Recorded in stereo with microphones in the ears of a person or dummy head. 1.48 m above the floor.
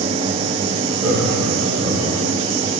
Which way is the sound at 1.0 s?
15° right (ahead or behind).